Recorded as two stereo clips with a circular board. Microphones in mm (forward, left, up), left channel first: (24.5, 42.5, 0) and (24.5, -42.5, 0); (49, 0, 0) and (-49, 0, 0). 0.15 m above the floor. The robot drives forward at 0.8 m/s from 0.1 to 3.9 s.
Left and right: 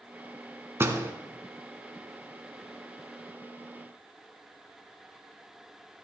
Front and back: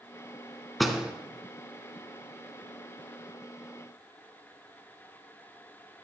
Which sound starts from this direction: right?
A door slam, at 0.8 s.